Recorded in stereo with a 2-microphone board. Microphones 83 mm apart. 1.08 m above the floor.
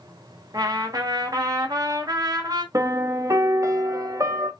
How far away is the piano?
About 0.8 m.